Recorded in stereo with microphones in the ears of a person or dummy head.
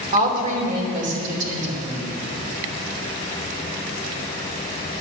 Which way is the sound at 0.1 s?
30° right (ahead or behind).